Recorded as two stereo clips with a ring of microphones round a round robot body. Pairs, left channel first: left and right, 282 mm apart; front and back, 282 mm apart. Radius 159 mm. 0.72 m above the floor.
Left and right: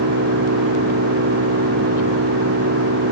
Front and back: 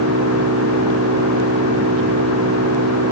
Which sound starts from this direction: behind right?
An engine running, at 0.0 s.